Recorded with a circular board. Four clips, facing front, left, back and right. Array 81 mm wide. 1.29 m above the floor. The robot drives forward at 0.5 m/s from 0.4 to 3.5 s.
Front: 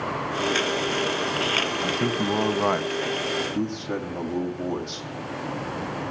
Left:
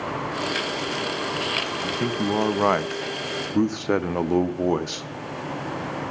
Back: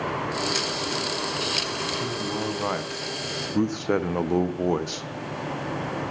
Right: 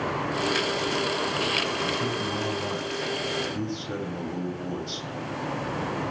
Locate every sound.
1.8 s a man speaking: 45° left, 0.8 m; by 5.1 s 120° left, 0.6 m